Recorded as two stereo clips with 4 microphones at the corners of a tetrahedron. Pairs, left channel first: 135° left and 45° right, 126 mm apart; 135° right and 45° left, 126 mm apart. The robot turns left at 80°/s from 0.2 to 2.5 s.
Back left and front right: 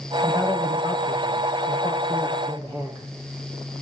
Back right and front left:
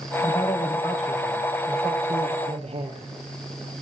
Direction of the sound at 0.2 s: 165° right.